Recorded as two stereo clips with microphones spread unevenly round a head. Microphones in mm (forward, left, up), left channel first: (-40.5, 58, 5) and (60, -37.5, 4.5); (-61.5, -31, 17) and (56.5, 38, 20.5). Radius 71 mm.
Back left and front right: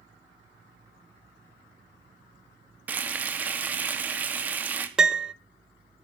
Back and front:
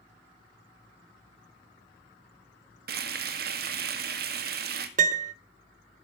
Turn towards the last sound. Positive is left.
turn(degrees=40)